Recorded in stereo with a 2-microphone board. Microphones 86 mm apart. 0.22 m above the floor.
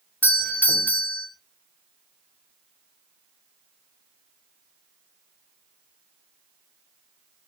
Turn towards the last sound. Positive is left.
turn(degrees=20)  # may be behind; listen again after turning